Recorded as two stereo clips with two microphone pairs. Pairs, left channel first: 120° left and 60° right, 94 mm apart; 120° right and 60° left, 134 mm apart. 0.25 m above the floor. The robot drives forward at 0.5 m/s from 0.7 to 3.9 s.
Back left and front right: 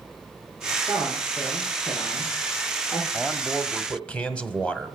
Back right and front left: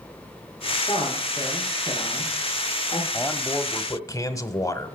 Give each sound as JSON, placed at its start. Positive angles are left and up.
{"t": 0.9, "sound": "a man speaking", "azimuth_deg": 180, "distance_m": 5.0}
{"t": 3.1, "sound": "a man speaking", "azimuth_deg": -155, "distance_m": 0.9}